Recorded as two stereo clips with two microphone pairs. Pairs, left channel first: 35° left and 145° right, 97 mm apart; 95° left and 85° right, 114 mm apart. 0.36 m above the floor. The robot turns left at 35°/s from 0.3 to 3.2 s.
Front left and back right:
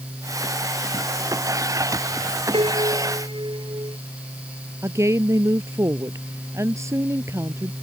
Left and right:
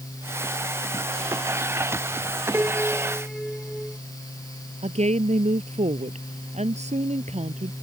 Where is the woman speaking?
85° right.